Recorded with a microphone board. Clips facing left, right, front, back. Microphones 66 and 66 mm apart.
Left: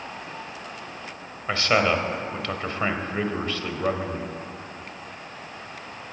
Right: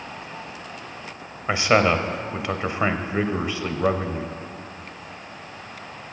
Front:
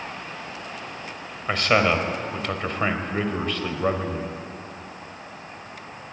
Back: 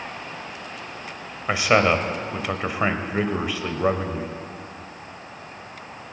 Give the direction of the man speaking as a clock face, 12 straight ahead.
4 o'clock.